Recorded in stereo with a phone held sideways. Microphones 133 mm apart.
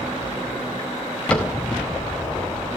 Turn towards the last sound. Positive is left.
turn(degrees=10)  # may be behind; listen again after turning